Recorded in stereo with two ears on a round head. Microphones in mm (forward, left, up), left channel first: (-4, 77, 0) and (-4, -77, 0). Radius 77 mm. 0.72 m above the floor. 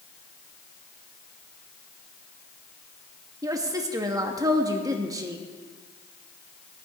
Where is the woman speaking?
20° right (ahead or behind), 1.0 m.